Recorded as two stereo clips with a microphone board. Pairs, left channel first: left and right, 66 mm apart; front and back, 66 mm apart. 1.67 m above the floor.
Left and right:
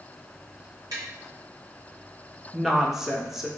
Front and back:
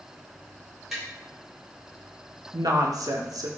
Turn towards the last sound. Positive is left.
turn(degrees=-175)